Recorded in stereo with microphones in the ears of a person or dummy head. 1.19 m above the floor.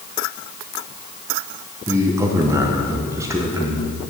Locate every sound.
1.9 s a man speaking: 10° right (ahead or behind), 0.9 m